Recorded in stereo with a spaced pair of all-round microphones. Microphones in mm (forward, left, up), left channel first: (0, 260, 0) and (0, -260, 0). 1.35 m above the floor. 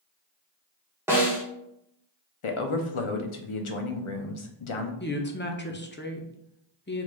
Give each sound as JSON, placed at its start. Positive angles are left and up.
{"t": 1.1, "sound": "a snare drum", "side_deg": -5, "distance_m": 1.2}
{"t": 2.4, "sound": "a man speaking", "side_deg": 65, "distance_m": 0.7}
{"t": 5.0, "sound": "a woman speaking", "side_deg": 20, "distance_m": 0.6}